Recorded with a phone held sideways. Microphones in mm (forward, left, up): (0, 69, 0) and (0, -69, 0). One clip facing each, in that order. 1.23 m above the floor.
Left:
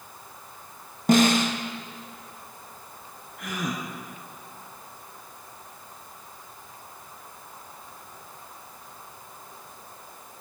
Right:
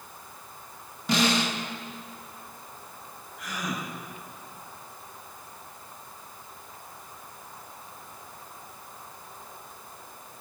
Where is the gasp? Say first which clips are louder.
Left 3 dB; 55° left (ahead or behind), 3 m.